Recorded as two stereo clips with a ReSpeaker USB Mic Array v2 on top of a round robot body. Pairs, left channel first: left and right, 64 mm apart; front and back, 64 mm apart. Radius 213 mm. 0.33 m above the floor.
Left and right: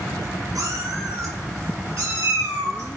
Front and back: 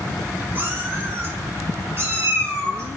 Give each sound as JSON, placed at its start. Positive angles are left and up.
{"t": 0.6, "sound": "a cat meowing", "azimuth_deg": -120, "distance_m": 5.0}